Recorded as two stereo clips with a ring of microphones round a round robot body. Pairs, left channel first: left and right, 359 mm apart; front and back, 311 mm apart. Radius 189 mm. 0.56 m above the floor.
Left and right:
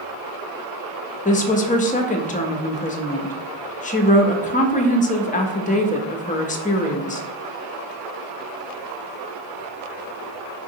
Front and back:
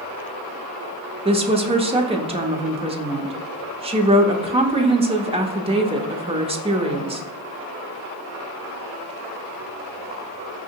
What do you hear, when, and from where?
1.2 s a woman speaking: 130° left, 0.6 m